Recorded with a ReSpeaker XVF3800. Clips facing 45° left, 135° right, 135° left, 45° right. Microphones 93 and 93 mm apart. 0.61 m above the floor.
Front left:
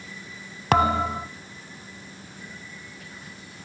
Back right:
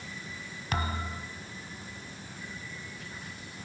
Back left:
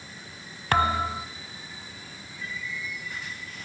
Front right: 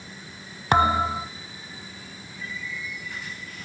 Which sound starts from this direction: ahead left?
A thud, at 0.7 s.